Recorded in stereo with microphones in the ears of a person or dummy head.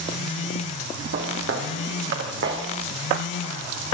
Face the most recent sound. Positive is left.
turn(degrees=-70)  # may be behind; listen again after turning